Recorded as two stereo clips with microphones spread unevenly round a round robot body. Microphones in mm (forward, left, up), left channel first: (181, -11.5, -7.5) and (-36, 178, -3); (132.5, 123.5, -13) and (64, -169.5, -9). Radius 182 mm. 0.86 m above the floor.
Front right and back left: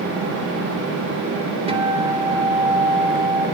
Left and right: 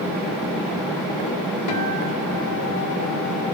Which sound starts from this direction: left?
A guitar, at 1.7 s.